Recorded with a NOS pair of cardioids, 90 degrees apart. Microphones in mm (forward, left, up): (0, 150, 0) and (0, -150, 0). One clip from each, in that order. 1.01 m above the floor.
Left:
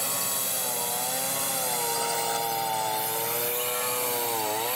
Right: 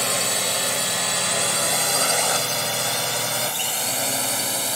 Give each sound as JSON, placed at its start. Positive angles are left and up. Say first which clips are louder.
{"t": 0.0, "sound": "a drone", "louder": "right 8 dB", "azimuth_deg": -70}